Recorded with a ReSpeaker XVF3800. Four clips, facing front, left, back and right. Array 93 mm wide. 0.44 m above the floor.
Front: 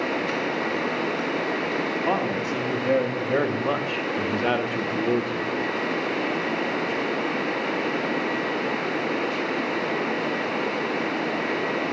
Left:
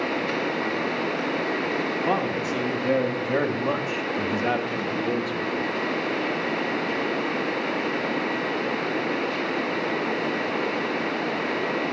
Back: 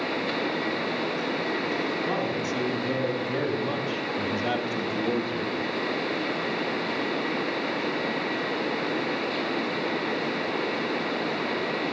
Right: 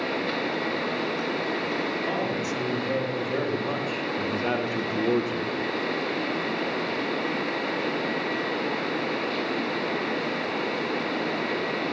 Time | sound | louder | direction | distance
2.0 | a man speaking | left 3 dB, front 3 dB | 35° left | 3 m